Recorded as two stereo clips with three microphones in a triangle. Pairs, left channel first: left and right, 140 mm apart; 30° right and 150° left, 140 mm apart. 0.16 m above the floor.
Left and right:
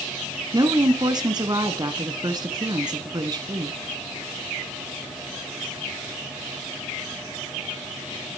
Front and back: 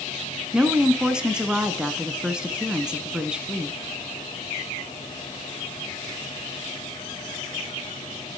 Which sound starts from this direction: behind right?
A woman speaking, at 0.5 s.